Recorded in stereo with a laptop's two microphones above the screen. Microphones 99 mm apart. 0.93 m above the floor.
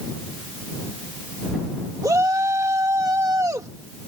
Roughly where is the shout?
Right.